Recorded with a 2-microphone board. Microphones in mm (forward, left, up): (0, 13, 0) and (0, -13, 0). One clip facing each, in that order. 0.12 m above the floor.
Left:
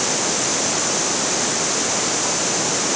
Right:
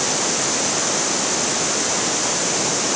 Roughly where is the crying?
No crying in this recording.